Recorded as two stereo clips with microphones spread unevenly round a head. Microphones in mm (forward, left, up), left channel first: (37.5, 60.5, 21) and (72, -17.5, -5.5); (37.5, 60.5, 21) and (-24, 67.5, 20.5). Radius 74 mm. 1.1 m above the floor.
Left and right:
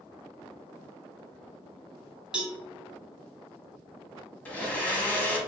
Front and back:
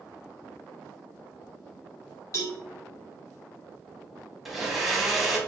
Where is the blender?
90° left, 1.1 m.